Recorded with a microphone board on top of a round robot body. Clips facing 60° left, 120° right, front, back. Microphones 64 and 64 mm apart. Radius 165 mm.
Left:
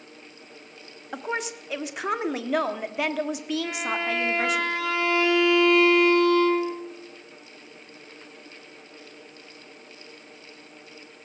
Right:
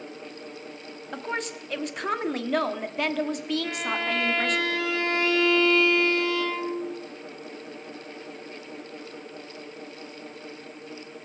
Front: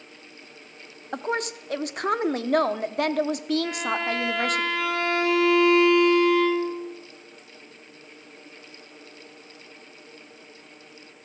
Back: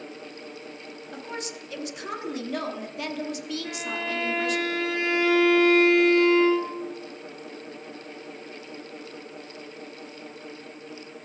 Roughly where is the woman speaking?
Ahead right.